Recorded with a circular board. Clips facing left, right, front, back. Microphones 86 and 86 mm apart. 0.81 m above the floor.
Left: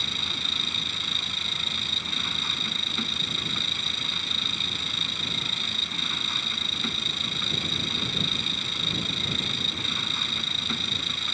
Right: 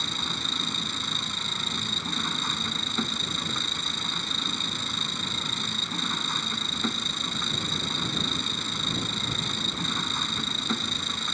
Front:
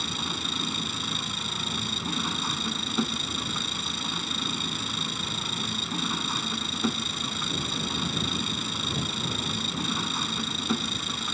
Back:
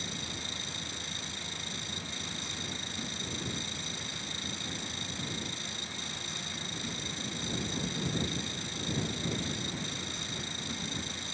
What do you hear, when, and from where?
0.0 s an engine running: 25° right